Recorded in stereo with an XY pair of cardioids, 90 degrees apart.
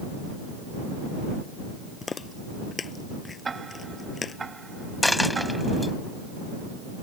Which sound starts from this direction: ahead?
A dropped coin, at 5.0 s.